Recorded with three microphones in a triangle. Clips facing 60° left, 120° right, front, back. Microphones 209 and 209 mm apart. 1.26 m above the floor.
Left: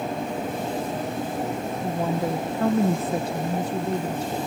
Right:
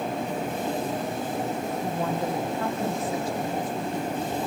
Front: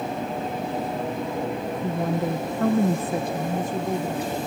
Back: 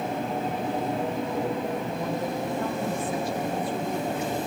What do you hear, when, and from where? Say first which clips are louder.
1.8 s a woman speaking: left 4 dB, front 4 dB; 25° right, 1.1 m; by 4.4 s 60° left, 1.7 m